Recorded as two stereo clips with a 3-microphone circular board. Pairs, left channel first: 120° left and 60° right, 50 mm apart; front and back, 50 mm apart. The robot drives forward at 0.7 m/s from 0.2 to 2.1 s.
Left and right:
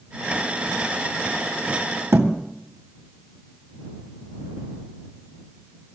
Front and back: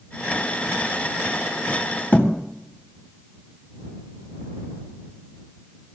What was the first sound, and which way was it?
A thud, 50° right.